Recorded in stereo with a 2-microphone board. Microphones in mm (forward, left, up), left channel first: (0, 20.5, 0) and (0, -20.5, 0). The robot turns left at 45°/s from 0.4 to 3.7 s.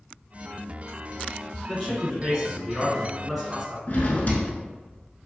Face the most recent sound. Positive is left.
turn(degrees=45)  # may be behind; listen again after turning